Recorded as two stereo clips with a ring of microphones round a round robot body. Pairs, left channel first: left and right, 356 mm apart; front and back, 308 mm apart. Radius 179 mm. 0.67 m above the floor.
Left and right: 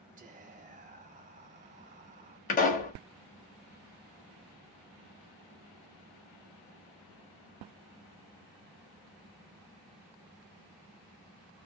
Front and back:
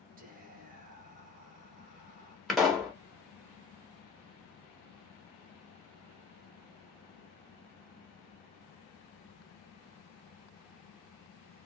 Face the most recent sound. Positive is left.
turn(degrees=90)